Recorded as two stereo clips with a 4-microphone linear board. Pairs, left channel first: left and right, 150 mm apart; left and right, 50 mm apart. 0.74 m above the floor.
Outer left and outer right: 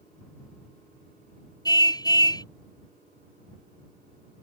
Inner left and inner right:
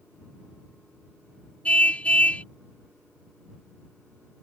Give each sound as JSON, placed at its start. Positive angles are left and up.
{"t": 1.6, "sound": "a car horn", "side_deg": 25}